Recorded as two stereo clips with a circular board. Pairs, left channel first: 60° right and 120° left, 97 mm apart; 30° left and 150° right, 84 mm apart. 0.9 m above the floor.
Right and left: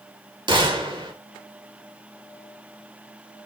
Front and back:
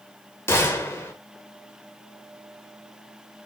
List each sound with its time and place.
0.5 s a gunshot: 90° left, 1.3 m